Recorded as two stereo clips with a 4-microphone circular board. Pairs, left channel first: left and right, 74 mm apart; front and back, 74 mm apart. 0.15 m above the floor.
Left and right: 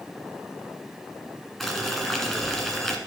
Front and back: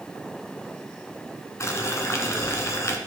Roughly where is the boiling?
Ahead.